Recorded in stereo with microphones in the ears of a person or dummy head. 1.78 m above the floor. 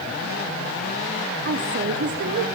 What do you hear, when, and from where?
1.4 s a woman speaking: 60° right (ahead or behind), 0.9 m